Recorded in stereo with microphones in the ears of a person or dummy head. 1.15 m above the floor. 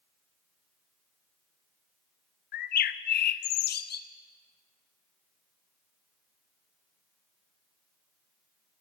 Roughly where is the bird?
Left.